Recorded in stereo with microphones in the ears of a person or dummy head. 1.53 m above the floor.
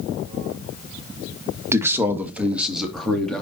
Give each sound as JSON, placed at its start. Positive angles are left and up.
{"t": 1.7, "sound": "a man speaking", "side_deg": -10, "distance_m": 1.7}